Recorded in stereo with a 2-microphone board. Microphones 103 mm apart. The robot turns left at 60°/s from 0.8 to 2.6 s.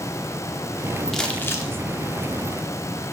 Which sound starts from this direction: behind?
Crumpling, at 1.1 s.